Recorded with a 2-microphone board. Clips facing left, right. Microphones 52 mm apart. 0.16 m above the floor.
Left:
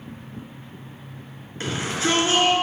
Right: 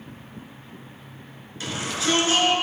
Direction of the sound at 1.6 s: 35° left (ahead or behind).